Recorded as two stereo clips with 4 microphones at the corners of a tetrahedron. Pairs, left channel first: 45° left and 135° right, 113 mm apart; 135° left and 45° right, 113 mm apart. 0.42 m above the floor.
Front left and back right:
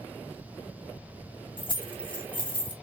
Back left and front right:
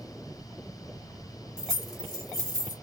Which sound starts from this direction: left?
Keys jangling, at 1.6 s.